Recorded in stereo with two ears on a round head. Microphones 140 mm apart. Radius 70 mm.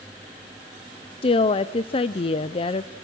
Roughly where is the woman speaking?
Left.